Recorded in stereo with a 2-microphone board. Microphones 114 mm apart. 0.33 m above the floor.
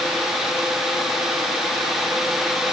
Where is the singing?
No singing in this recording.